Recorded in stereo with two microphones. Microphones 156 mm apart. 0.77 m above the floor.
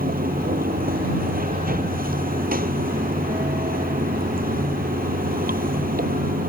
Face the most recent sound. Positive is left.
turn(degrees=-70)  # may be behind; listen again after turning